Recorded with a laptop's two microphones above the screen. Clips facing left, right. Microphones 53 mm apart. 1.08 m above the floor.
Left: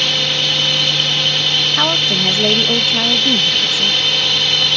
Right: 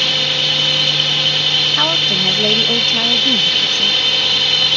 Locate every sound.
0.0 s a drone: centre (ahead or behind)
1.7 s a woman speaking: 5° left (ahead or behind)